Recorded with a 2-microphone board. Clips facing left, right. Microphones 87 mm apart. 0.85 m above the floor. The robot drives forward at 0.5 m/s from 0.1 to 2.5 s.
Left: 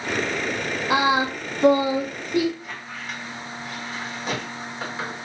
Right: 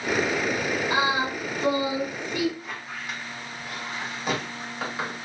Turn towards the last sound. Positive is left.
turn(degrees=-10)  # may be behind; listen again after turning